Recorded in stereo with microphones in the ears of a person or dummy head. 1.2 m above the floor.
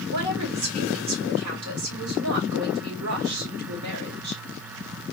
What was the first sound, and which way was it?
A woman speaking, 85° right.